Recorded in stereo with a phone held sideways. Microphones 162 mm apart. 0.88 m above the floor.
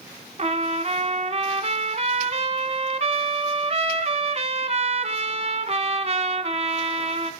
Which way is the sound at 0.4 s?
40° right (ahead or behind).